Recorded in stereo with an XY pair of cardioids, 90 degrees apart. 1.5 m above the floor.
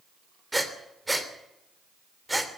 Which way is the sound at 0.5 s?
10° right.